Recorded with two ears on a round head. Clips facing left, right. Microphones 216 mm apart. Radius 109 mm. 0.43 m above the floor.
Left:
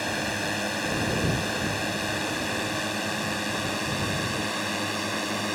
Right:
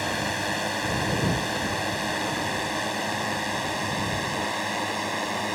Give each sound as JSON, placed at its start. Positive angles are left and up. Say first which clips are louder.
{"t": 0.0, "sound": "a drone", "louder": "even", "side_deg": 5}